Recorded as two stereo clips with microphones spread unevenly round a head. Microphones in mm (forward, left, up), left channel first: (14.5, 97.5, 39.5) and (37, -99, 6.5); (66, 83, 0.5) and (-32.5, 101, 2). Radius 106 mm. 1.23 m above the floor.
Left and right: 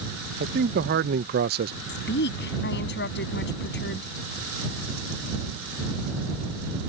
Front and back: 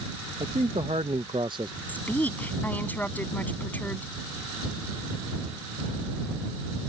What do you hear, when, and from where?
0.4 s a man speaking: 125° right; by 1.8 s 120° right
1.9 s a woman speaking: 65° left